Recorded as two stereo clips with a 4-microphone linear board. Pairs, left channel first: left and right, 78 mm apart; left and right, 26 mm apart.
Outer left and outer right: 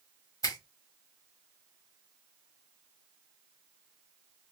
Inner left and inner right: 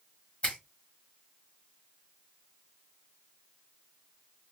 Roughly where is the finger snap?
Left.